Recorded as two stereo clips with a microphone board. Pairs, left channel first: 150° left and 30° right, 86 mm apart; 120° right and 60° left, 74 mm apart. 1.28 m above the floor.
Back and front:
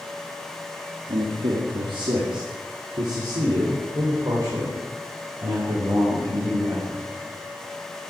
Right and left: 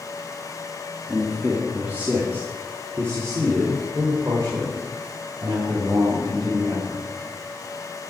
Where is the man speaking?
25° right, 1.7 m; by 7.0 s 20° left, 6 m.